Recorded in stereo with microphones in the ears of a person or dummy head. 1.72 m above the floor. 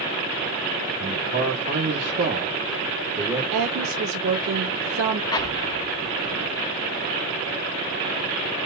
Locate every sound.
1.0 s a man speaking: 65° right (ahead or behind), 1.9 m; by 3.4 s 15° right (ahead or behind), 1.4 m
3.5 s a woman speaking: 65° right (ahead or behind), 1.2 m
5.3 s an explosion: 20° left (ahead or behind), 1.1 m